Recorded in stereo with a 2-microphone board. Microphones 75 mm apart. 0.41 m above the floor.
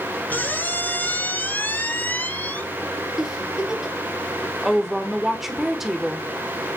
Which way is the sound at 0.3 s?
25° left (ahead or behind).